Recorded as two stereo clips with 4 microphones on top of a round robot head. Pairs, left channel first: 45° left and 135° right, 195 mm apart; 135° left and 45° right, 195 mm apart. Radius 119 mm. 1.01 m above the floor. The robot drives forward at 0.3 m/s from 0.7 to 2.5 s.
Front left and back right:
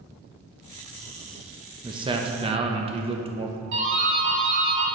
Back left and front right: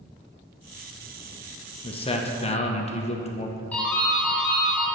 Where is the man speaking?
175° left, 0.9 m; by 3.6 s straight behind, 1.0 m.